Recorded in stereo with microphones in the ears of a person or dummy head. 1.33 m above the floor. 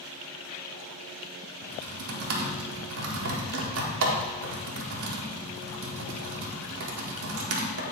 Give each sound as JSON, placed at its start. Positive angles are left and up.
{"t": 1.6, "sound": "typing on a keyboard", "side_deg": -75, "distance_m": 1.5}